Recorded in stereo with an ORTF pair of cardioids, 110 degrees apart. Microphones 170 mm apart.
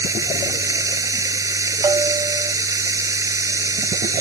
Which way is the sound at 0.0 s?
20° right.